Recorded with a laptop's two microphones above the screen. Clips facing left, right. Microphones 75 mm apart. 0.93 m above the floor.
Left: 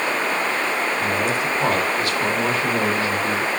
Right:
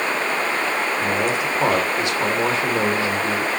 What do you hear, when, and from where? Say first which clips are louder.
1.0 s a man speaking: even; 20° right (ahead or behind), 3 m